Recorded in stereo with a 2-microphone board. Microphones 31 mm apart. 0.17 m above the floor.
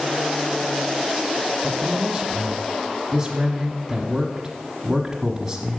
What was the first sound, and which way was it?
A man speaking, 10° right (ahead or behind).